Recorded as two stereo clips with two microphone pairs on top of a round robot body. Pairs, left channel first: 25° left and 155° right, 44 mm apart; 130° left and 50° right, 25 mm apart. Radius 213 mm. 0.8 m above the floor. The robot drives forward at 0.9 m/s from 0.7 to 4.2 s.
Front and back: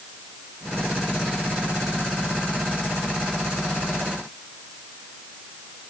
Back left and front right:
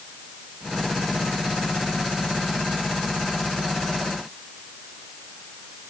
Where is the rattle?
I don't hear a rattle.